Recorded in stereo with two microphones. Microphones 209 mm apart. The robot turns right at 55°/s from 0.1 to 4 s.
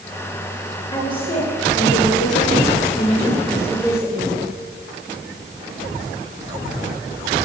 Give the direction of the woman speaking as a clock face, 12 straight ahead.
11 o'clock.